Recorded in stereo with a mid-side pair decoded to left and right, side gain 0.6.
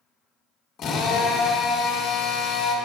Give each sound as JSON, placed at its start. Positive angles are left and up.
{"t": 0.8, "sound": "a drill", "azimuth_deg": 50, "distance_m": 1.6}